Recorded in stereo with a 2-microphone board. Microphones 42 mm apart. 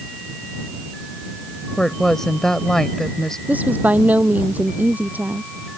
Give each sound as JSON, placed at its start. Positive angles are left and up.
{"t": 1.8, "sound": "a woman speaking", "side_deg": 10}
{"t": 3.5, "sound": "a woman speaking", "side_deg": -40}